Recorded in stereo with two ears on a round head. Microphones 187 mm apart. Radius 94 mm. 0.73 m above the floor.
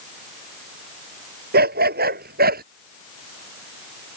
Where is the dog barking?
50° right (ahead or behind).